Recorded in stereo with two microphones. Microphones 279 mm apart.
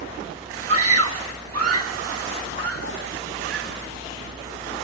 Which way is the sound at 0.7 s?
50° right (ahead or behind).